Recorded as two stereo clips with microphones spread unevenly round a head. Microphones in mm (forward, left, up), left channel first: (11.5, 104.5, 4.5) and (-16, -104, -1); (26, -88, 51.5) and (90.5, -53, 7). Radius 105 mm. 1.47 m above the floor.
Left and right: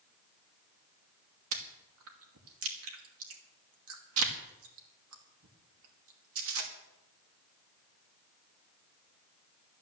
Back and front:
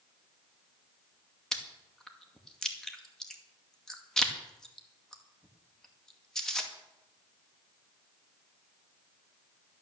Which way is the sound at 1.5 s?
70° right.